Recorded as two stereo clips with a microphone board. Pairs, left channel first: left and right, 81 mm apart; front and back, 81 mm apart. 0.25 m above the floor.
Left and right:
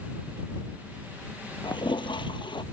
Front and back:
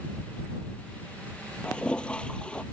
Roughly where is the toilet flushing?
Left.